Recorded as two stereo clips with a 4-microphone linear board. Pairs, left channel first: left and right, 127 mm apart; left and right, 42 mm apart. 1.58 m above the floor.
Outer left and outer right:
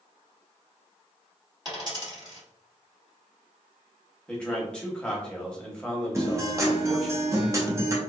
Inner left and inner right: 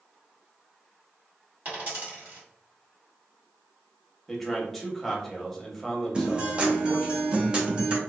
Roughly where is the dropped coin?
Right.